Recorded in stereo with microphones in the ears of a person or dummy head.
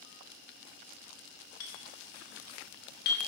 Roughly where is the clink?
Left.